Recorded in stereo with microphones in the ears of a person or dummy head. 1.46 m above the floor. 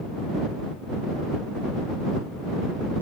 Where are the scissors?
No scissors in this recording.